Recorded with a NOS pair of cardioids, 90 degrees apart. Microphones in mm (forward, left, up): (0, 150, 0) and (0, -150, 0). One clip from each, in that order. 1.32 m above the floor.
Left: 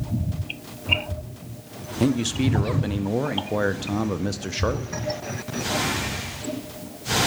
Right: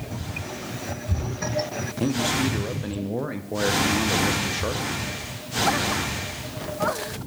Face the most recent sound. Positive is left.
turn(degrees=15)